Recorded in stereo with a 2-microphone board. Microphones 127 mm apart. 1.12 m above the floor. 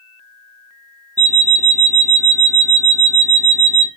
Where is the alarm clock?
25° right (ahead or behind), 0.6 m.